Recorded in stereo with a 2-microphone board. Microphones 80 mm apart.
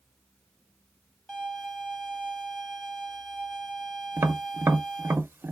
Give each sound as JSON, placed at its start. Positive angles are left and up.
{"t": 1.3, "sound": "a violin", "side_deg": 5, "distance_m": 0.8}
{"t": 4.2, "sound": "tapping", "side_deg": -25, "distance_m": 0.5}